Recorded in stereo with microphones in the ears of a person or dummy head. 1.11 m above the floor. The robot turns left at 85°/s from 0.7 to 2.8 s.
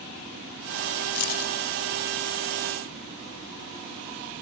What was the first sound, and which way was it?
Keys jangling, 80° left.